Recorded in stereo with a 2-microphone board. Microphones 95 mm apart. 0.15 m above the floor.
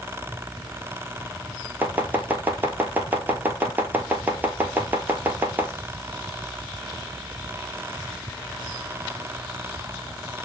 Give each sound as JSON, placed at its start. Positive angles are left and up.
{"t": 1.8, "sound": "chopping", "side_deg": -20, "distance_m": 0.8}